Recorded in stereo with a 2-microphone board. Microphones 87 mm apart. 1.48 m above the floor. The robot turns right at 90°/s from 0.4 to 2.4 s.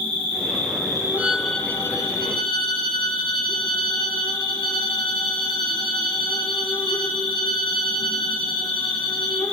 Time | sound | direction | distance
0.0 | an insect | 90° right | 2 m
1.2 | a violin | 25° right | 0.9 m